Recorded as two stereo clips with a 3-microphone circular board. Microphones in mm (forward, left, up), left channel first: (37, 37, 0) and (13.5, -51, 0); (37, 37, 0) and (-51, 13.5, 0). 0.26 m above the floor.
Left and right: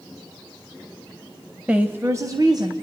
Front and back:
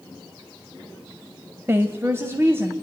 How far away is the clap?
No clap in this recording.